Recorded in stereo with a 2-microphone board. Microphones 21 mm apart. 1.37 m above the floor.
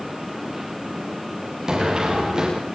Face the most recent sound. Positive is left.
turn(degrees=-35)  # may be behind; listen again after turning